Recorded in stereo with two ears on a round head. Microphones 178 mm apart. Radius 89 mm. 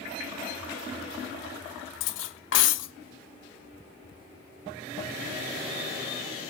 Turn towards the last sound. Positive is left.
turn(degrees=70)  # may be behind; listen again after turning